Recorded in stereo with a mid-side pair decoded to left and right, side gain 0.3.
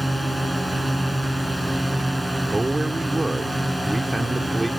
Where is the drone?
Straight ahead; by 4.8 s 5° right.